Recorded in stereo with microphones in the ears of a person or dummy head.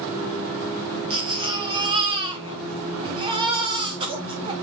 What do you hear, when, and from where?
1.1 s a baby crying: 25° right (ahead or behind), 0.9 m